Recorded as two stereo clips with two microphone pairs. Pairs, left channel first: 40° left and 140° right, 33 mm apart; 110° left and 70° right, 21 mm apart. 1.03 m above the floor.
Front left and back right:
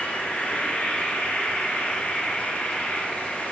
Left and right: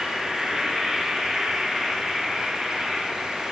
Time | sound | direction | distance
0.0 | an insect | 5° right | 0.9 m